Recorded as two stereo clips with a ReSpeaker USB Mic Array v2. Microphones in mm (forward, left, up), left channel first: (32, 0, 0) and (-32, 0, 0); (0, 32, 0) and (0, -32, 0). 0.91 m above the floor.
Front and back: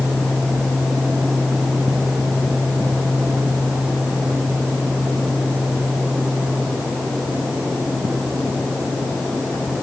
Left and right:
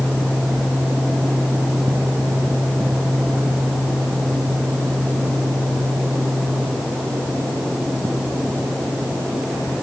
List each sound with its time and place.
Only background noise.